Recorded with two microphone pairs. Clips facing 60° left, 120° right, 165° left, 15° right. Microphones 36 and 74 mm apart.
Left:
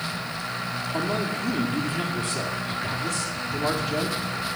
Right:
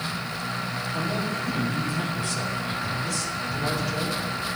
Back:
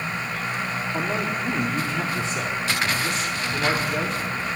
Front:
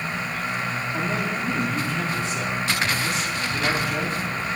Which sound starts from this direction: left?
A man speaking, at 0.9 s.